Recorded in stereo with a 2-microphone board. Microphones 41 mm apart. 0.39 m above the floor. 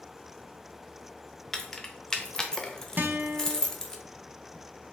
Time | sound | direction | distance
1.5 | keys jangling | 15° left (ahead or behind) | 0.6 m
3.0 | a guitar | 50° right (ahead or behind) | 0.6 m